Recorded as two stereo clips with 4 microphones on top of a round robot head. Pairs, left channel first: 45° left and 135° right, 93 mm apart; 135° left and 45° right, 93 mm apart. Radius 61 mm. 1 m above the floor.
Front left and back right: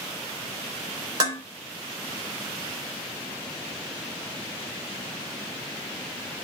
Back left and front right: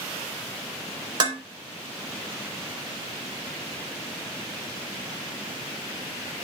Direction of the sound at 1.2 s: 85° right.